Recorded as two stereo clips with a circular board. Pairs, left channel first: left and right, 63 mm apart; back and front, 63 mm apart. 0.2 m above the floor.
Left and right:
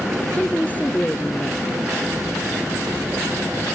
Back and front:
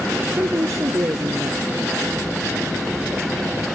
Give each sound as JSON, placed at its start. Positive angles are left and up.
{"t": 0.3, "sound": "a woman speaking", "azimuth_deg": 30}